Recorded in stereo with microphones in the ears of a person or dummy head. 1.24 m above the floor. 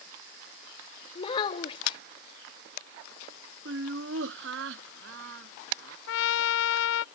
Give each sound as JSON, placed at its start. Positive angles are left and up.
{"t": 1.1, "sound": "a child speaking", "side_deg": 30}
{"t": 3.6, "sound": "laughter", "side_deg": -70}
{"t": 6.1, "sound": "a trumpet", "side_deg": 75}